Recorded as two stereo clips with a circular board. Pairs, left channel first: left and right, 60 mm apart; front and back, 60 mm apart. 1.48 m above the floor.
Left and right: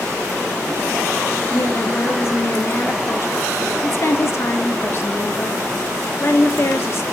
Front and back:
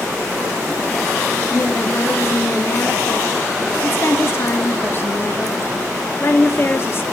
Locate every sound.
1.5 s a woman speaking: 45° left, 1.3 m